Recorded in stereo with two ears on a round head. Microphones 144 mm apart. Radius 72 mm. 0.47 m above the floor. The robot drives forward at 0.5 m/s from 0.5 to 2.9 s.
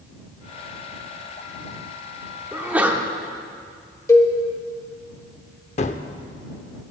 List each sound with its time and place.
2.5 s a sneeze: 10° right (ahead or behind), 1.0 m
4.1 s a cowbell: 20° left (ahead or behind), 1.1 m
5.8 s a gunshot: 45° left (ahead or behind), 0.6 m